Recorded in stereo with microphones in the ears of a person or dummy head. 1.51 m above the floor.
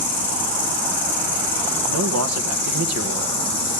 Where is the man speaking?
80° right, 1.8 m.